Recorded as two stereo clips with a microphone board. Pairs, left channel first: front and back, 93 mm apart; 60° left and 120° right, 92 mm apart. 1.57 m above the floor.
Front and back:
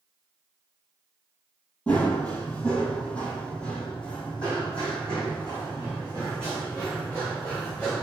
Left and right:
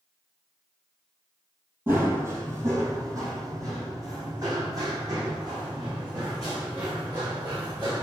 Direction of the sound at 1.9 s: 70° right.